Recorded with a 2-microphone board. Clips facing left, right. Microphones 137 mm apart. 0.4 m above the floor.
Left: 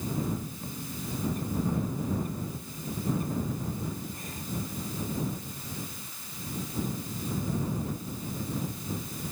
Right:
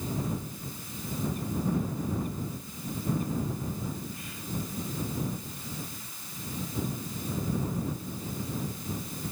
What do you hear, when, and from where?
0.6 s a bird: 40° left (ahead or behind)